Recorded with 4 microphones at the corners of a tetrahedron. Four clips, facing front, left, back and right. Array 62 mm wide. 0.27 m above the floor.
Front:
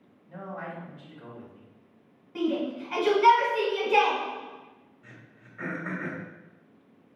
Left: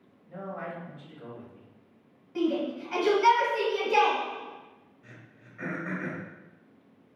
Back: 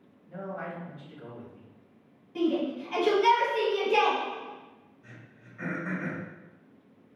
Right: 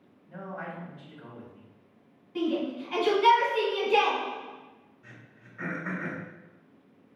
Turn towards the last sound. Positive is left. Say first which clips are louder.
# even, even
turn(degrees=-10)